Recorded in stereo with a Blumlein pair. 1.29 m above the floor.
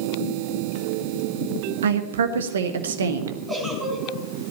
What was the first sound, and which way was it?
A woman speaking, 65° right.